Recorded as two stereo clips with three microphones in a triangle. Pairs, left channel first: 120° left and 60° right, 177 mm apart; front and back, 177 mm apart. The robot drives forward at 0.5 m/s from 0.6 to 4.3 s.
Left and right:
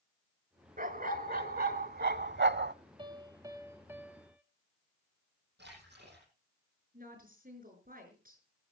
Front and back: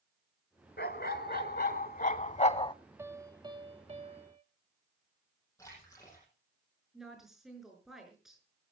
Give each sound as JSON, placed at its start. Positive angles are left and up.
{"t": 0.8, "sound": "a dog barking", "azimuth_deg": -20, "distance_m": 1.3}
{"t": 3.0, "sound": "a piano", "azimuth_deg": -110, "distance_m": 1.1}
{"t": 5.6, "sound": "a splash", "azimuth_deg": -75, "distance_m": 9.5}
{"t": 6.9, "sound": "a woman speaking", "azimuth_deg": -90, "distance_m": 5.0}